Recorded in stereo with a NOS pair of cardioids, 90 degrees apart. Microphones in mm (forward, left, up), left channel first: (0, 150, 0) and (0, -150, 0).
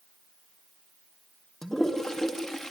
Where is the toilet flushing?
Straight ahead, 2.5 m.